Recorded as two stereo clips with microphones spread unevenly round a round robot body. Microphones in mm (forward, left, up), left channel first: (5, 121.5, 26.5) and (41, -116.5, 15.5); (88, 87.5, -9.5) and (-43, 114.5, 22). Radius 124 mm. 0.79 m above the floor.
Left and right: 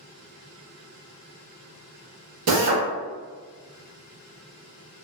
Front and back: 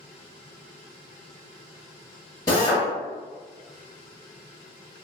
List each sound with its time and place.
2.5 s a drill: 75° right, 0.9 m